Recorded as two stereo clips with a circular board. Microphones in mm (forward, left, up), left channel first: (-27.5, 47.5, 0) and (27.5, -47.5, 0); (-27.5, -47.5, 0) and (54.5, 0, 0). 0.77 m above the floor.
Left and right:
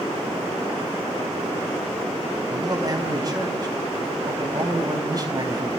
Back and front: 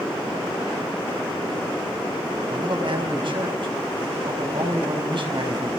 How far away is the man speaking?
About 5 m.